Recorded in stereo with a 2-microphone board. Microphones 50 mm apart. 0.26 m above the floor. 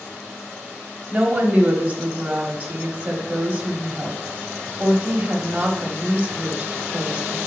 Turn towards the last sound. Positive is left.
turn(degrees=-35)  # may be behind; listen again after turning